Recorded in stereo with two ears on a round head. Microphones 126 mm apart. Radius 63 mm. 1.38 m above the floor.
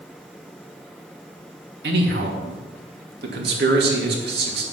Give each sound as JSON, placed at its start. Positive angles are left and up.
{"t": 1.8, "sound": "a man speaking", "side_deg": -80, "distance_m": 2.5}